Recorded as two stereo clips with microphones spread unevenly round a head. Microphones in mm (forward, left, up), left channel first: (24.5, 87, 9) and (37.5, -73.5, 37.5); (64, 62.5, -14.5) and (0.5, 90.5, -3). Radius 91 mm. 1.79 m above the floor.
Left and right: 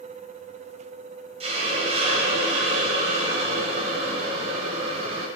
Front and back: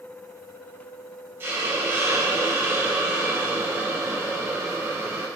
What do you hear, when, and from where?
1.4 s a hiss: 140° right, 1.3 m